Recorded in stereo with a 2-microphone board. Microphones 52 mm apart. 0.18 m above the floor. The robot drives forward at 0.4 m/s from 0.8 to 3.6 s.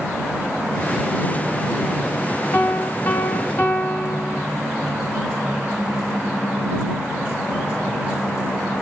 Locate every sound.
2.5 s a piano: 45° left (ahead or behind), 0.8 m